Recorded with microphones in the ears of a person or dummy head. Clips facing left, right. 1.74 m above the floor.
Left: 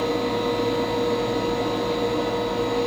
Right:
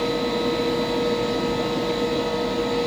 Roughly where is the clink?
I don't hear a clink.